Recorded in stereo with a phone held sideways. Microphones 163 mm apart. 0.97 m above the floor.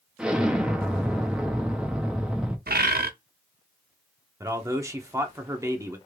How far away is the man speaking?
About 0.6 m.